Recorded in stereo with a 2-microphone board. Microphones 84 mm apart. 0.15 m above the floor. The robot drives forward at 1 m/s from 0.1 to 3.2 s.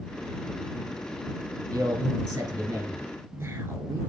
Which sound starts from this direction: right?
A man speaking, at 1.7 s.